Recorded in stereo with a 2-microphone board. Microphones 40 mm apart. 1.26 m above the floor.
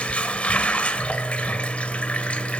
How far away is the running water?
About 2.0 m.